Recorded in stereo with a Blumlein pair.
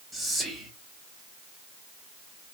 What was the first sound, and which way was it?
Whispering, straight ahead.